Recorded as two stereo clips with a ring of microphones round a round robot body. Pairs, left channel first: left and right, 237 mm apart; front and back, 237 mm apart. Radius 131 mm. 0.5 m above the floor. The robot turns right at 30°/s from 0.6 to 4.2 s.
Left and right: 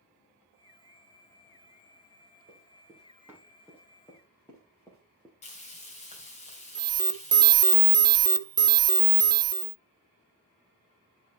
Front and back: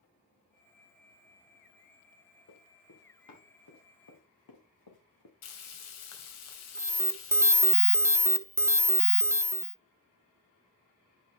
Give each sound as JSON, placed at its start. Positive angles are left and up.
{"t": 2.5, "sound": "running footsteps", "azimuth_deg": -30, "distance_m": 5.0}
{"t": 5.4, "sound": "frying", "azimuth_deg": 25, "distance_m": 2.0}
{"t": 6.8, "sound": "an alarm", "azimuth_deg": -125, "distance_m": 0.9}